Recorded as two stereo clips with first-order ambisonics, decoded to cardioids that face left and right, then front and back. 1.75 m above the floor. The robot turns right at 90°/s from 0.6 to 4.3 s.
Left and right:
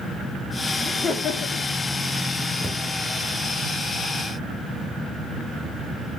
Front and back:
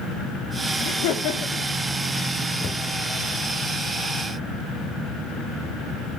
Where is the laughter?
15° right, 2 m; by 1.6 s 65° left, 2 m.